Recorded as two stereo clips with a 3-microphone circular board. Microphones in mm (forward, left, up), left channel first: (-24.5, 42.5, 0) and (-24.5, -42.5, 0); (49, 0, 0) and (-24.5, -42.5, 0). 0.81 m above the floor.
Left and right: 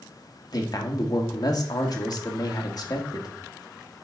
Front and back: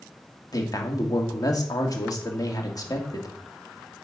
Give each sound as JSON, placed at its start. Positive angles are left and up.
{"t": 0.5, "sound": "a man speaking", "azimuth_deg": 65, "distance_m": 1.7}